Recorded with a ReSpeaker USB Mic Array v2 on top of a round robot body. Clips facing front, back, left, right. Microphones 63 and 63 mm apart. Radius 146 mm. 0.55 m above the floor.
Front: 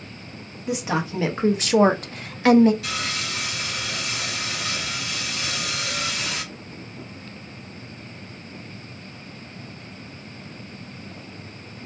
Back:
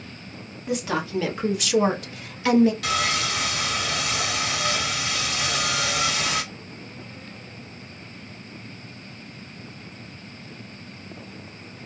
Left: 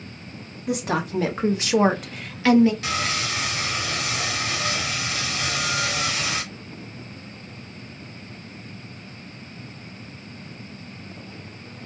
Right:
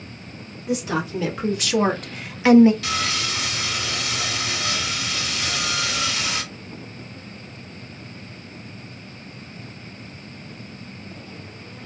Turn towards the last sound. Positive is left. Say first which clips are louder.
# back 5 dB, even
turn(degrees=150)